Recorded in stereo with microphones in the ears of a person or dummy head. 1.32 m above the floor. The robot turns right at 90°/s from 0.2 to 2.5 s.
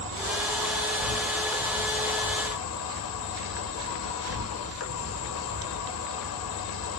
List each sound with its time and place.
0.0 s an insect: 115° right, 1.1 m; by 7.0 s 95° left, 1.1 m